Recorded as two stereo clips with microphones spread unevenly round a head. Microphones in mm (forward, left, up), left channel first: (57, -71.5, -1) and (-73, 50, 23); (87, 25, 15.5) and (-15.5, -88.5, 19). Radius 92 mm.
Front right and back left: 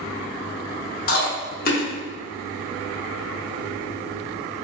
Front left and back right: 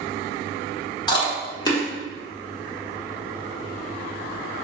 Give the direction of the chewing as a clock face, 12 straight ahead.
12 o'clock.